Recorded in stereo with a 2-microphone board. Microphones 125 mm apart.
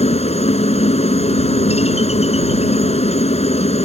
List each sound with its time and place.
0.0 s a helicopter: 55° left (ahead or behind)